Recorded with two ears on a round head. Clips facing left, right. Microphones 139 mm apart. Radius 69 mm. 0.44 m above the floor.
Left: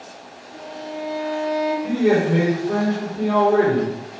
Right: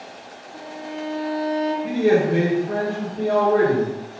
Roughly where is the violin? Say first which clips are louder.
Left 1 dB; centre.